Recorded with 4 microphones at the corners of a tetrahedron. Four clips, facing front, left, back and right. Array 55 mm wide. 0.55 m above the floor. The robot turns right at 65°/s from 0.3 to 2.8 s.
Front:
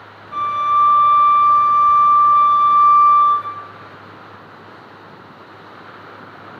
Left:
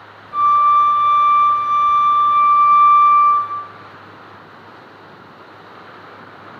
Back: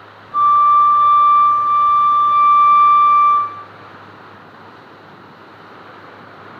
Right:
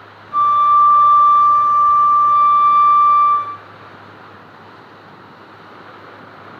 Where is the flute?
10° left, 7.5 m; by 3.6 s 170° left, 7.5 m.